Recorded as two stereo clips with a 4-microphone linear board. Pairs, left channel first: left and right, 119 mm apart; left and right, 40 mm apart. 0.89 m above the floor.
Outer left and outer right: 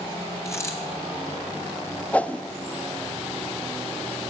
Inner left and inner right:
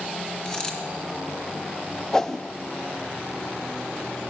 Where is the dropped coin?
25° left (ahead or behind), 2.5 m.